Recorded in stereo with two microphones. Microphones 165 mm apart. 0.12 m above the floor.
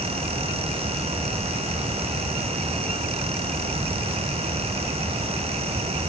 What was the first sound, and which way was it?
Only background noise.